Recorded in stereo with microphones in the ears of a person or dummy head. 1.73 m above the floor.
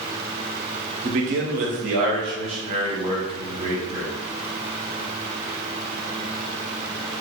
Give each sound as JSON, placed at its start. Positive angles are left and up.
{"t": 1.0, "sound": "a man speaking", "side_deg": -40, "distance_m": 0.5}